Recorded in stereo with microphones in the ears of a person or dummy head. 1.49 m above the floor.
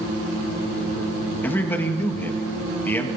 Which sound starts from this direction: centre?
A man speaking, at 1.4 s.